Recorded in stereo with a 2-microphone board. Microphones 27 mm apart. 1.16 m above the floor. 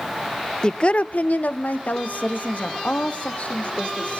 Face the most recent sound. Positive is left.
turn(degrees=60)  # may be behind; listen again after turning